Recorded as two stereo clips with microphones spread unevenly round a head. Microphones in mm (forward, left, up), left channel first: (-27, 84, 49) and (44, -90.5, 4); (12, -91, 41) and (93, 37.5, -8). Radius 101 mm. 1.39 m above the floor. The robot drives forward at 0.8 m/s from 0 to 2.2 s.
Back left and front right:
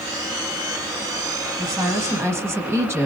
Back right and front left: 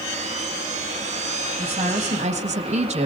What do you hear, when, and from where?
1.6 s a woman speaking: 10° left, 1.9 m